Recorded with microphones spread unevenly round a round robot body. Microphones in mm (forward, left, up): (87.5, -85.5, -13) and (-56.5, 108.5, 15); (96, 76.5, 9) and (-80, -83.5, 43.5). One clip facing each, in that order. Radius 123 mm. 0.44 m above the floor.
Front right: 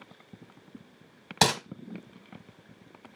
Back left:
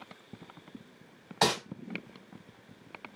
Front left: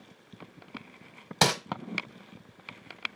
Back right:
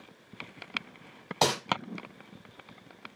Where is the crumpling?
15° right, 0.8 m.